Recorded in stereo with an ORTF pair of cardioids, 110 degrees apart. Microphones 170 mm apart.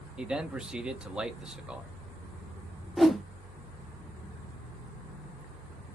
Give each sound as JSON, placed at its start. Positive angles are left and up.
{"t": 0.2, "sound": "a man speaking", "azimuth_deg": -5, "distance_m": 0.8}
{"t": 3.0, "sound": "a whoosh", "azimuth_deg": 0, "distance_m": 0.6}